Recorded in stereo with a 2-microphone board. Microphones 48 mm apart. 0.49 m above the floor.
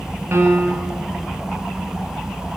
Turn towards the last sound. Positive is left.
turn(degrees=-60)  # may be behind; listen again after turning